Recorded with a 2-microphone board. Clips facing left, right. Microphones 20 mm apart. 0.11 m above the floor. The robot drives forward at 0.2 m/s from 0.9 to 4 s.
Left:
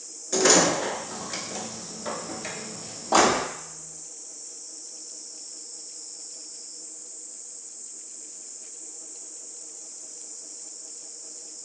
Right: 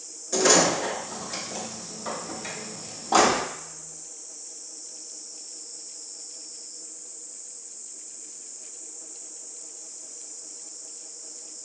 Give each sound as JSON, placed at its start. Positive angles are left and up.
{"t": 0.3, "sound": "a door slam", "side_deg": 15, "distance_m": 0.8}